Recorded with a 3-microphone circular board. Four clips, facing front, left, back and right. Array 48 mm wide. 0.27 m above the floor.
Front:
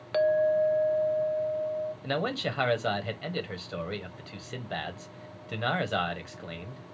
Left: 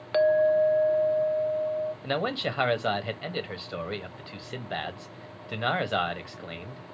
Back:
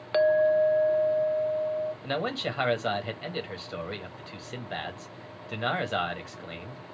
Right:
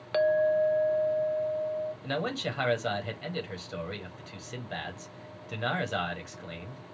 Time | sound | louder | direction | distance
0.1 | a clink | left 3 dB, back 2 dB | 155° left | 0.5 m
2.0 | a man speaking | left 3 dB, even | 90° left | 1.2 m